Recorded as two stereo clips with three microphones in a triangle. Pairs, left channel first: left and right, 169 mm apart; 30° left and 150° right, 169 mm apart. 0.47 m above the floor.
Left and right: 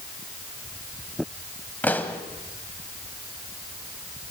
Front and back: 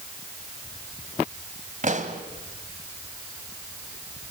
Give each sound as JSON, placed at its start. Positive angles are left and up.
{"t": 1.8, "sound": "a pop", "azimuth_deg": 170, "distance_m": 1.7}